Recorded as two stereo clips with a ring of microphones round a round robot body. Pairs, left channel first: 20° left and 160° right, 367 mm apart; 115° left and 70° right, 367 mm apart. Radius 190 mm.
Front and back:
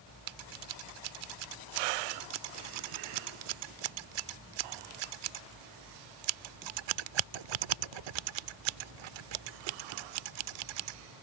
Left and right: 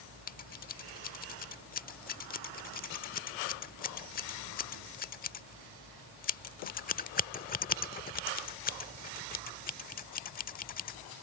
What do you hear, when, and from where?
0.3 s scissors: straight behind